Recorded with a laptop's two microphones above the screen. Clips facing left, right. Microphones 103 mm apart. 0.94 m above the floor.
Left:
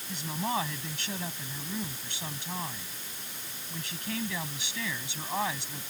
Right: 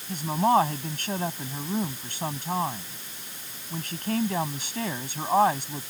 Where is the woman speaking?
45° right (ahead or behind).